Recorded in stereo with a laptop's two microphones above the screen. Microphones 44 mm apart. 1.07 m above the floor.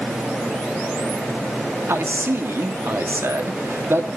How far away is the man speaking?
About 2.5 m.